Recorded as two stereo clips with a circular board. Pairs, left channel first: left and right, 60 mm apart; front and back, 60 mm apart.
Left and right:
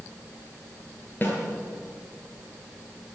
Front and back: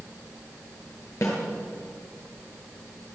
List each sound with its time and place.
1.2 s a snare drum: 30° left, 7 m